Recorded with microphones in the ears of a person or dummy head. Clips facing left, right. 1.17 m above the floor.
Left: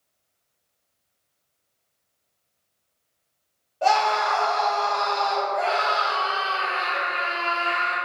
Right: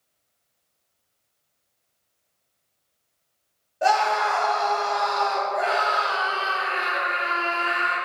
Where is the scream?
15° right (ahead or behind), 2.5 m.